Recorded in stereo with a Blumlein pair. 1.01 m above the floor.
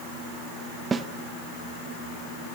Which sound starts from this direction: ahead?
A snare drum, at 0.9 s.